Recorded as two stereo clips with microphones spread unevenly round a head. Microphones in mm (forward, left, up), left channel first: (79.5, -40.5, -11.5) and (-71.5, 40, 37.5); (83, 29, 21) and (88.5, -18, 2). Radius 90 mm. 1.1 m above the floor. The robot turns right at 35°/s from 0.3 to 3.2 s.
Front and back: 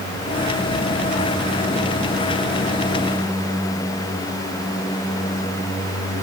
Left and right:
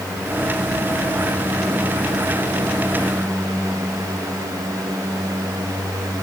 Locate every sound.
Only background noise.